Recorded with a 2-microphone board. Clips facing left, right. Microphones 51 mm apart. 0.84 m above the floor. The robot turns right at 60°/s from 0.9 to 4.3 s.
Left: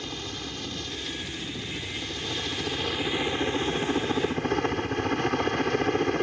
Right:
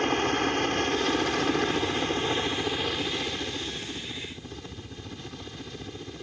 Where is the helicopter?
120° right; by 6.2 s 85° left.